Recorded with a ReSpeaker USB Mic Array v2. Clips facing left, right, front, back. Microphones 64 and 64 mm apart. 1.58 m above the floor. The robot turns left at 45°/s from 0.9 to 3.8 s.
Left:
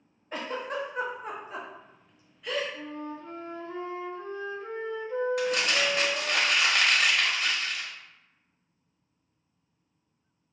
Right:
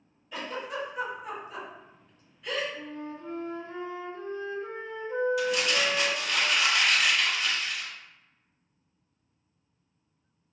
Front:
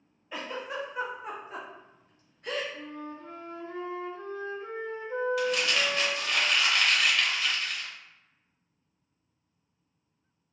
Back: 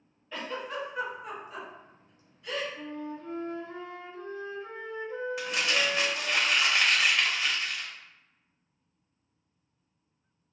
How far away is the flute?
About 0.9 m.